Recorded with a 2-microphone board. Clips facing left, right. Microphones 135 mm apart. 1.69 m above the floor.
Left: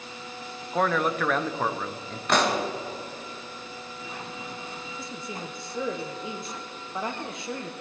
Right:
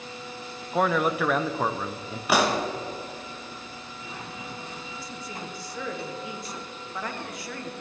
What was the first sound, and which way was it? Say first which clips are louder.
A man speaking: right 1 dB; 5° right (ahead or behind).